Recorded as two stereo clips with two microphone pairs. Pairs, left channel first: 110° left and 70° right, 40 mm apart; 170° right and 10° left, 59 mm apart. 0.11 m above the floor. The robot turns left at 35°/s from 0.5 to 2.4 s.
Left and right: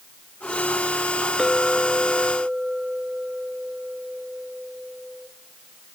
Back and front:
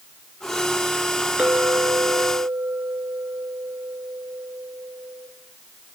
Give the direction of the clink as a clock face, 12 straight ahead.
11 o'clock.